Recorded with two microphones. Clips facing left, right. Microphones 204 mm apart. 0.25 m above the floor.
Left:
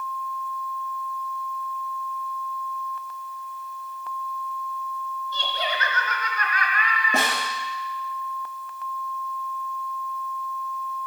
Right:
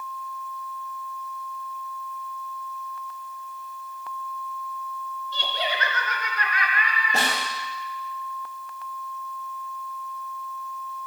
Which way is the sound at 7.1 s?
55° left (ahead or behind).